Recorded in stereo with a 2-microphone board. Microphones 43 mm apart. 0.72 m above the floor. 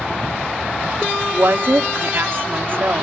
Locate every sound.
1.3 s a woman speaking: 55° right (ahead or behind), 1.2 m